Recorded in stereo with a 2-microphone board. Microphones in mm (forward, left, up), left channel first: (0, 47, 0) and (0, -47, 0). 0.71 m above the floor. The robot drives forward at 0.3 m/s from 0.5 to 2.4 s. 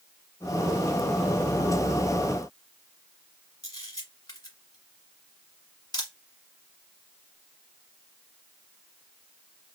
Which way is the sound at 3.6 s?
45° left (ahead or behind).